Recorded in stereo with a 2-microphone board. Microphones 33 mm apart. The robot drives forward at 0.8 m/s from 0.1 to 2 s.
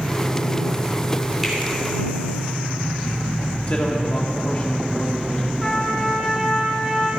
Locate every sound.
1.4 s a finger snap: centre (ahead or behind), 3 m
3.7 s a man speaking: 35° left (ahead or behind), 1.9 m
5.6 s a trumpet: 5° left (ahead or behind), 2.5 m